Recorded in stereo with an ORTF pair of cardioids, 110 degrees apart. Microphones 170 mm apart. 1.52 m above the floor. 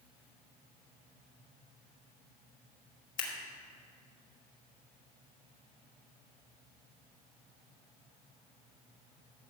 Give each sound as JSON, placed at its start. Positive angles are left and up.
{"t": 3.2, "sound": "scissors", "azimuth_deg": 55, "distance_m": 3.0}